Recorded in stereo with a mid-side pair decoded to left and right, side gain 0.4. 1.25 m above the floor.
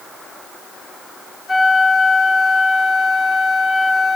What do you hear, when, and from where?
1.5 s a flute: 35° left, 3.5 m